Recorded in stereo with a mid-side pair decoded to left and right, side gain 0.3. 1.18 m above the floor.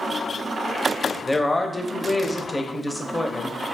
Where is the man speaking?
20° left, 0.6 m.